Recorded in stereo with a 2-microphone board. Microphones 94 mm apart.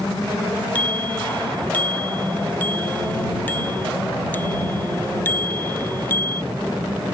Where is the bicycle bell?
15° left (ahead or behind); by 6.5 s 25° left (ahead or behind).